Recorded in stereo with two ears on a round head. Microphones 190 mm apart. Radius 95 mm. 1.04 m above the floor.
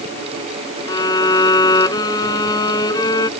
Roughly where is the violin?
Centre.